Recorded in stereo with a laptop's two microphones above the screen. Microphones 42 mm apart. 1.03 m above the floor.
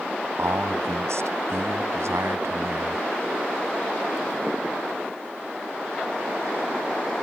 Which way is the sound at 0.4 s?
80° right.